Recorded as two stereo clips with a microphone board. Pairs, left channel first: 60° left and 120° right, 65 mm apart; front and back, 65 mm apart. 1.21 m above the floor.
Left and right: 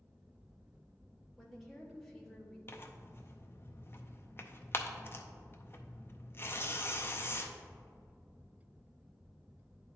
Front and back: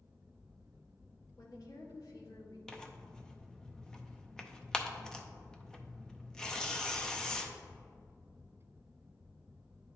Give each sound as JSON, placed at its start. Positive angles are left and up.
{"t": 1.4, "sound": "a woman speaking", "azimuth_deg": -30, "distance_m": 1.6}
{"t": 2.7, "sound": "tearing paper", "azimuth_deg": 70, "distance_m": 0.6}